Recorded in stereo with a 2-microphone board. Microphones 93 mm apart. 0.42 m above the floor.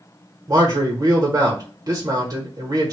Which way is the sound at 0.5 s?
40° right (ahead or behind).